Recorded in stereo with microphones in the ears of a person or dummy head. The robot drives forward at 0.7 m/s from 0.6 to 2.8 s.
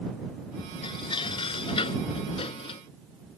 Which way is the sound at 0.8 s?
25° left (ahead or behind).